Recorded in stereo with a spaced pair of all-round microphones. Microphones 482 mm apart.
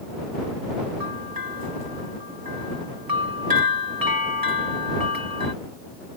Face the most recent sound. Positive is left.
turn(degrees=-45)  # may be behind; listen again after turning